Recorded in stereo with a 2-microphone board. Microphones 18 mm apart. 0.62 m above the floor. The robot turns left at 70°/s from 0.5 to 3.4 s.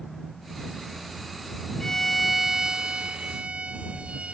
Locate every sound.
1.8 s a violin: 25° left; by 4.3 s 90° right